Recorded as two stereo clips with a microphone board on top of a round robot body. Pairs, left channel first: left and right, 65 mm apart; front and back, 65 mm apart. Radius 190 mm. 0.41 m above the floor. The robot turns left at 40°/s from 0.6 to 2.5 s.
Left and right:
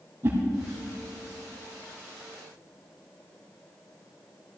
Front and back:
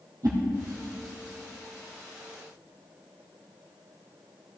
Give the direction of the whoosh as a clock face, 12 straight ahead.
5 o'clock.